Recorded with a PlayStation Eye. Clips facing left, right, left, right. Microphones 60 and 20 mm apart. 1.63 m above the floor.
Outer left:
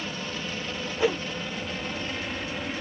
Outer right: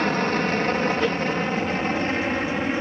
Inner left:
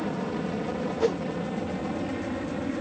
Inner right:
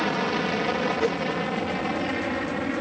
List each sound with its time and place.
0.0 s an aircraft: 60° right (ahead or behind); by 2.8 s 40° right (ahead or behind)
1.0 s a whoosh: 10° left (ahead or behind)